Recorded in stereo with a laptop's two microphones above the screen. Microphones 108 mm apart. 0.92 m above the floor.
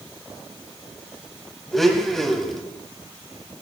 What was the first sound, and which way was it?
A blender, centre (ahead or behind).